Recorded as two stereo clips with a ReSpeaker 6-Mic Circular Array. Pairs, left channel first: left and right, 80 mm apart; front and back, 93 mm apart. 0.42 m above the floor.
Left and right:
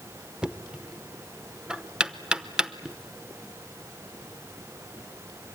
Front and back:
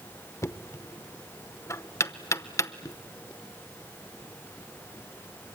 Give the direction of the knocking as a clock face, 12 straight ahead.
1 o'clock.